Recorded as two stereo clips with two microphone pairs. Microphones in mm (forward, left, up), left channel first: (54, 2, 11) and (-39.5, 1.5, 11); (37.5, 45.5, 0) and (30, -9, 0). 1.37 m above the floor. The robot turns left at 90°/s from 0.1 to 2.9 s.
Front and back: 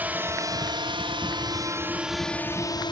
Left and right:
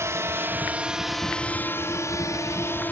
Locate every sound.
0.0 s a drone: 110° right; by 2.9 s 30° left